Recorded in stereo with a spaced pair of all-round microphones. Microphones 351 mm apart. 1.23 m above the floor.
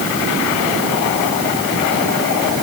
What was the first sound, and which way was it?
Only background noise.